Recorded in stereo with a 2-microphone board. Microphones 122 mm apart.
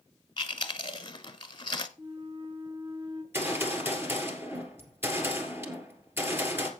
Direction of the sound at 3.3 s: 20° right (ahead or behind).